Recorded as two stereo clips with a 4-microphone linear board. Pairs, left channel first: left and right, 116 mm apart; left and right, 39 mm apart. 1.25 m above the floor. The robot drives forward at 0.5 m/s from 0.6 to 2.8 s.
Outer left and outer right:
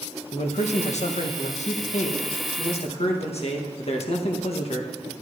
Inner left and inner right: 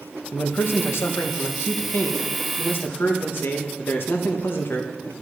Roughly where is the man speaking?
Left.